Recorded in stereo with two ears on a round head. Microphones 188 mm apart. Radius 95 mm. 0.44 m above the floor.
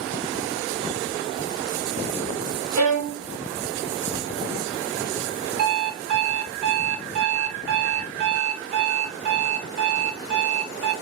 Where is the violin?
70° right (ahead or behind), 1.4 m.